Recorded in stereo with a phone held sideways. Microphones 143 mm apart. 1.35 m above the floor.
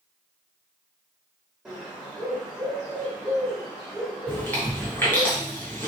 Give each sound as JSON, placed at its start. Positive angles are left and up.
{"t": 1.6, "sound": "a bird", "side_deg": -5, "distance_m": 1.7}
{"t": 4.3, "sound": "chewing", "side_deg": 15, "distance_m": 1.8}